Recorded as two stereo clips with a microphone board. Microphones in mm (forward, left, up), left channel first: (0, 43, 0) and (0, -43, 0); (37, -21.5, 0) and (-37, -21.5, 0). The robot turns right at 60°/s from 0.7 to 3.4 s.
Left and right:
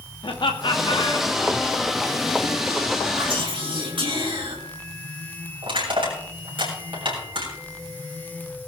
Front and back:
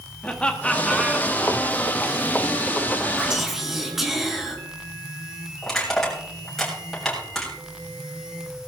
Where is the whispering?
105° right, 3.5 m; by 4.6 s 95° right, 3.5 m.